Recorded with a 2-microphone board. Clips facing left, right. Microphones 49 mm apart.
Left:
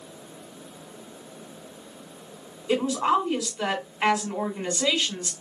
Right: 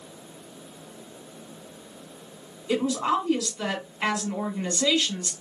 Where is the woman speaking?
20° left (ahead or behind), 1.6 m.